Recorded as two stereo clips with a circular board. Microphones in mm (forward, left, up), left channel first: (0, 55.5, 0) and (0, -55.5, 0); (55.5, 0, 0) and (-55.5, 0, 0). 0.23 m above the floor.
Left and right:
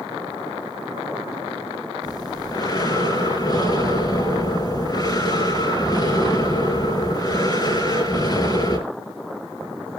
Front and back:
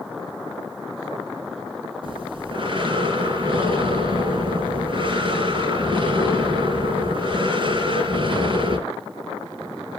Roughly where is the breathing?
Behind left.